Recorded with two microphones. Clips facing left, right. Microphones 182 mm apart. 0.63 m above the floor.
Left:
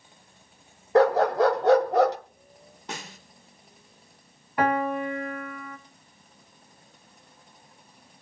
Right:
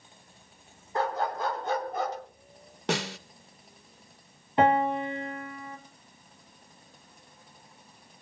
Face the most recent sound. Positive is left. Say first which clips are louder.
# right 1 dB
turn(degrees=-25)  # may be behind; listen again after turning